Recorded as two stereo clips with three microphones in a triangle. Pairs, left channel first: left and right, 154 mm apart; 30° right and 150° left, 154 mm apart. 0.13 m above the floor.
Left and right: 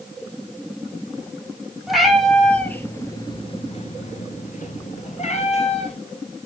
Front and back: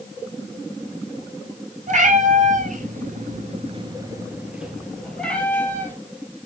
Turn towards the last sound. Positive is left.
turn(degrees=45)